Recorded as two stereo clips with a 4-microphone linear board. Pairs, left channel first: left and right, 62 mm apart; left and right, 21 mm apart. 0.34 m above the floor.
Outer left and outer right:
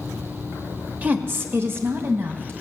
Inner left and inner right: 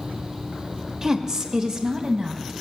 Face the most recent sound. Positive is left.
turn(degrees=-40)  # may be behind; listen again after turning